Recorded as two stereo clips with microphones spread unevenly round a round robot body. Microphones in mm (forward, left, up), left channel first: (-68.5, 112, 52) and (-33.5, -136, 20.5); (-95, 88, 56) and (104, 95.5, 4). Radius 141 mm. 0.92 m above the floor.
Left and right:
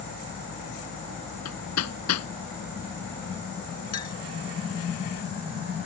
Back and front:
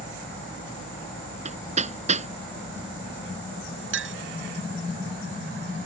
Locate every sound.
1.4 s hammering: 60° left
3.9 s a clink: 25° left